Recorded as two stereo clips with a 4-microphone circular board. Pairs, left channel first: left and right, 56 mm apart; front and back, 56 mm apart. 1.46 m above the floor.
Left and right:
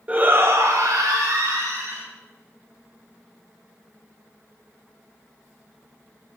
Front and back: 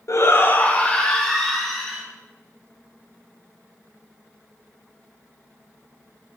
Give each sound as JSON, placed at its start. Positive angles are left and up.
{"t": 0.1, "sound": "a shout", "azimuth_deg": -25, "distance_m": 0.9}